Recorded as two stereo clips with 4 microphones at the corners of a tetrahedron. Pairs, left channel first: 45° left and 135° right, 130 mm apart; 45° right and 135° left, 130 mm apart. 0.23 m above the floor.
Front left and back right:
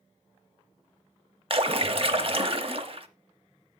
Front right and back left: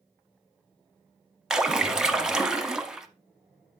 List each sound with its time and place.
1.5 s a splash: 140° right, 0.9 m